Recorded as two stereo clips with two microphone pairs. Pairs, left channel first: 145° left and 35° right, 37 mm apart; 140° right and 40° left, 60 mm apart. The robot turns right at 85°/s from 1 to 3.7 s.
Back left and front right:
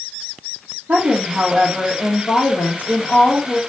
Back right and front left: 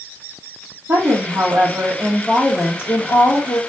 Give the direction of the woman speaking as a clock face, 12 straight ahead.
12 o'clock.